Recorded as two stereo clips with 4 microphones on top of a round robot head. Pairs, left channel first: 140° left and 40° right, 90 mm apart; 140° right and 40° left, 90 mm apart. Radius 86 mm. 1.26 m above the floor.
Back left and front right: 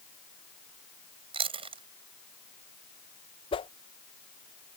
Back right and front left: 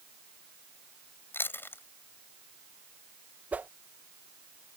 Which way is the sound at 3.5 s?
115° left.